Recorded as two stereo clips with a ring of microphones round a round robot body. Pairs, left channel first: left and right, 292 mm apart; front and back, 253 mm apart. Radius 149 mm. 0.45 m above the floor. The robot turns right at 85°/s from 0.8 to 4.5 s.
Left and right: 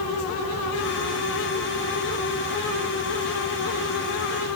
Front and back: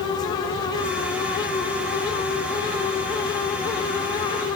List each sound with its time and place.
Only background noise.